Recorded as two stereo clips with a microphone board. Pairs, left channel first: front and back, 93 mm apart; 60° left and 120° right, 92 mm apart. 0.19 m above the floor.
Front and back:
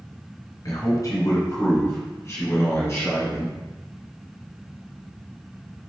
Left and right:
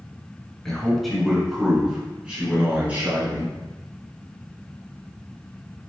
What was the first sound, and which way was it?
A man speaking, 25° right.